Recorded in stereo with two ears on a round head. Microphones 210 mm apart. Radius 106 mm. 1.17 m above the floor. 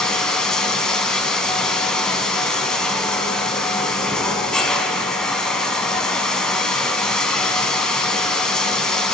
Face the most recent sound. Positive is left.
turn(degrees=5)  # may be behind; listen again after turning